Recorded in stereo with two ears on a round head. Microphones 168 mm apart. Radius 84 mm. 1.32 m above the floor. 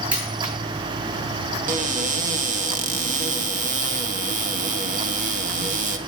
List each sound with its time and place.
0.1 s a dropped coin: 10° right (ahead or behind), 9 m
1.7 s a cupboard door: 45° right (ahead or behind), 1.8 m